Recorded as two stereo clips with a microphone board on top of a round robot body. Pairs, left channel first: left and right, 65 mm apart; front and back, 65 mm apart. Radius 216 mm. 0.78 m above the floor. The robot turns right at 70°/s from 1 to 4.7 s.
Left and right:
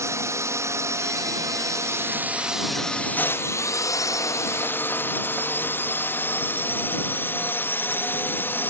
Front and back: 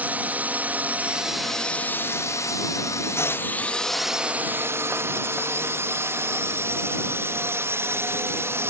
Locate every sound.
0.0 s a drone: 120° right; by 8.7 s 140° left